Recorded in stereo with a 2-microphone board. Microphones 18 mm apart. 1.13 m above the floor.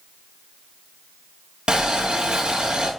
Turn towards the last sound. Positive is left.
turn(degrees=-60)  # may be behind; listen again after turning